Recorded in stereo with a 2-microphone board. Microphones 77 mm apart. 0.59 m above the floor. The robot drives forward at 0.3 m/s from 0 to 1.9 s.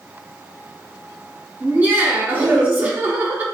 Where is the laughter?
20° right (ahead or behind), 0.6 m.